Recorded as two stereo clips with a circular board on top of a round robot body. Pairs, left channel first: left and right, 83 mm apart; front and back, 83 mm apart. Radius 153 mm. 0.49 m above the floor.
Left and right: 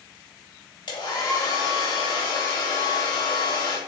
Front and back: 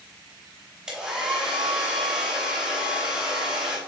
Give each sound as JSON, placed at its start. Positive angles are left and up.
{"t": 0.9, "sound": "a hair dryer", "azimuth_deg": 100, "distance_m": 3.0}